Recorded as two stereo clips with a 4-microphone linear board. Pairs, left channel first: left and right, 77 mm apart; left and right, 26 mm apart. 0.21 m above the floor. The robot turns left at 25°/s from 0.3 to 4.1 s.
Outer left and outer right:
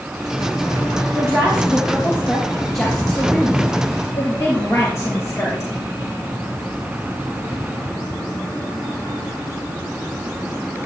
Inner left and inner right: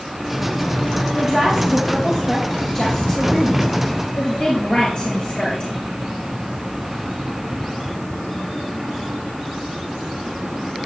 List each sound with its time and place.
1.1 s a woman speaking: 140° right, 4.5 m; by 5.7 s 145° left, 4.5 m